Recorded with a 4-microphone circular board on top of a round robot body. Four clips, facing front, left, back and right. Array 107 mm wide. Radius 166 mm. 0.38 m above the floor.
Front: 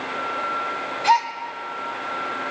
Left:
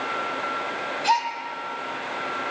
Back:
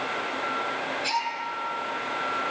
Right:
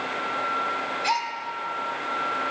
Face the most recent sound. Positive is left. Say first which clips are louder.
# left 5 dB, front 13 dB
turn(degrees=-5)